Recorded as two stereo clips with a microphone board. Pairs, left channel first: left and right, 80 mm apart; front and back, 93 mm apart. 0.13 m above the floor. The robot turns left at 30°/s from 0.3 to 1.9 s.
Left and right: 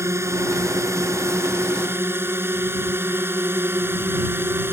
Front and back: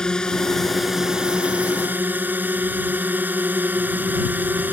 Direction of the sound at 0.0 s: 75° right.